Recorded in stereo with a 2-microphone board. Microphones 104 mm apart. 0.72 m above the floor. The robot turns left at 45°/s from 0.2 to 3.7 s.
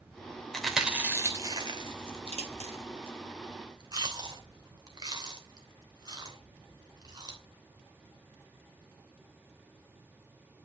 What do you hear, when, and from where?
0.5 s chewing: 5° left (ahead or behind), 3 m; by 7.4 s 40° right (ahead or behind), 3 m